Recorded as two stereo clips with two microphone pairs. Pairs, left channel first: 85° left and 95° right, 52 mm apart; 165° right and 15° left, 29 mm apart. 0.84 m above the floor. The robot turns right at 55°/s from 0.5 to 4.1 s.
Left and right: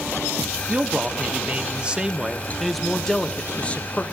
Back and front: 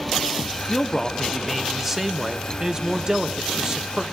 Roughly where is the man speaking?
Behind right.